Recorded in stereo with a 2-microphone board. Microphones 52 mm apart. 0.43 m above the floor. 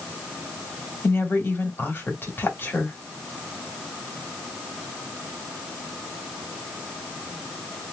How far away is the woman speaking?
About 1.9 m.